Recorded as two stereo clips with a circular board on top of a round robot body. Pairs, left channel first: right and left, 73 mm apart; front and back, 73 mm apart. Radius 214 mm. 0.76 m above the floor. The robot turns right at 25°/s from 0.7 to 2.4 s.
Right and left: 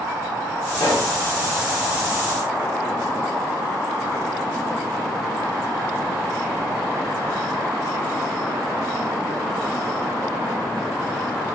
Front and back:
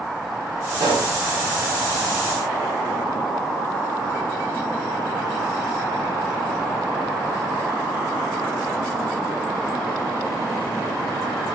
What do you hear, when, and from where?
0.8 s a pop: 170° right, 0.6 m; by 1.2 s 165° right, 0.6 m